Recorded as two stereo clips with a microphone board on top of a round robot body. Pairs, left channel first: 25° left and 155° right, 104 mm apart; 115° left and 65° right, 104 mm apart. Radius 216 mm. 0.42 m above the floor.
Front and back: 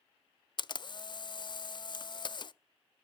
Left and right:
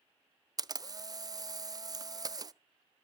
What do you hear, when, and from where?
0.6 s a camera shutter: 15° right, 0.6 m